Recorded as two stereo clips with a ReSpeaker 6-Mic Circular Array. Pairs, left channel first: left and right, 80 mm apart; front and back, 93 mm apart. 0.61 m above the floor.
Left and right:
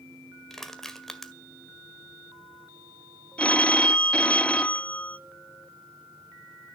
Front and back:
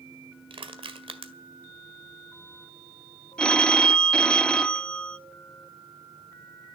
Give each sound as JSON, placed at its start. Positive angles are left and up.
{"t": 0.5, "sound": "crushing", "azimuth_deg": 175, "distance_m": 1.7}
{"t": 3.4, "sound": "a phone ringing", "azimuth_deg": 60, "distance_m": 0.5}